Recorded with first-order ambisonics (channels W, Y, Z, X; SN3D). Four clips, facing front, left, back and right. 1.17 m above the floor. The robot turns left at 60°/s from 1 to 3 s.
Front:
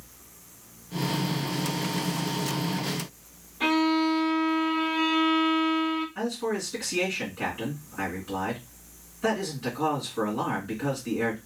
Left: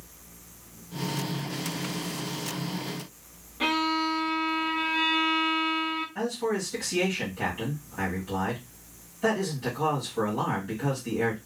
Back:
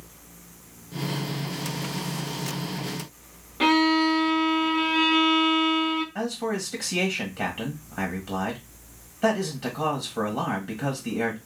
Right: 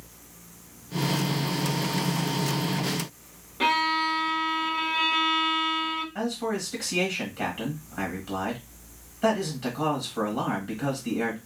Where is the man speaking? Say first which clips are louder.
Even, back 1 dB; 165° right, 1.4 m.